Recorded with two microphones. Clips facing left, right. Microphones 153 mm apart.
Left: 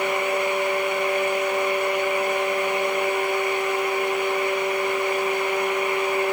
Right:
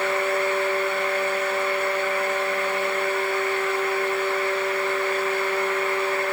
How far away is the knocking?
No knocking in this recording.